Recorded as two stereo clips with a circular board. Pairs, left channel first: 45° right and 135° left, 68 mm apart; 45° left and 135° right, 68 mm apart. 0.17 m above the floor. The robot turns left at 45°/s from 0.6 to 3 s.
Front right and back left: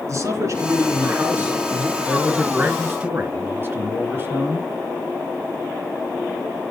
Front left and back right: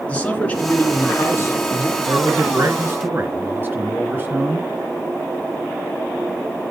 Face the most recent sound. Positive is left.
turn(degrees=175)